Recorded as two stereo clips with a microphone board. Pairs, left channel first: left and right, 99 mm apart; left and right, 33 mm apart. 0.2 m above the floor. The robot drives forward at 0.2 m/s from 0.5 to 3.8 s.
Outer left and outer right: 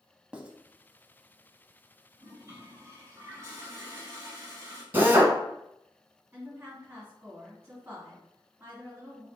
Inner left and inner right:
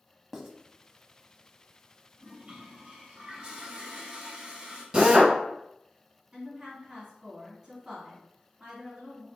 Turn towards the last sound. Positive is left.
turn(degrees=-15)  # may be behind; listen again after turning